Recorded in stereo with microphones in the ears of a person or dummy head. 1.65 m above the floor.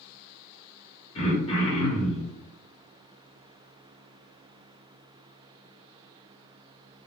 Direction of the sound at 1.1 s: 30° left (ahead or behind).